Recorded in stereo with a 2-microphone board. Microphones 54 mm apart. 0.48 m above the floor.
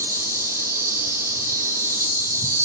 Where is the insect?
75° right (ahead or behind), 0.8 m.